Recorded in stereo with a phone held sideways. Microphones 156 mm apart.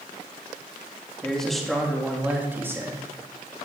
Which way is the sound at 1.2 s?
5° left (ahead or behind).